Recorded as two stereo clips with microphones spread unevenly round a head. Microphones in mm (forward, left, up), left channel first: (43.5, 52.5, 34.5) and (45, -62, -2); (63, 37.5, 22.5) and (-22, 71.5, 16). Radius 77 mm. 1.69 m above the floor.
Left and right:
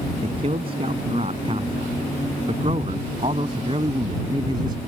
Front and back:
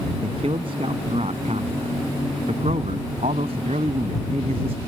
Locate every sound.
0.2 s a man speaking: 145° right; by 4.8 s 155° right